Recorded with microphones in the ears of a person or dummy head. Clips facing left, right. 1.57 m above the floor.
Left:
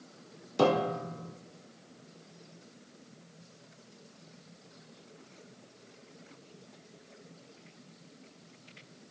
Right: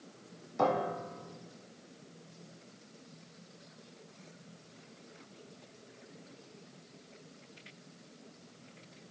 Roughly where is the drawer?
I don't hear a drawer.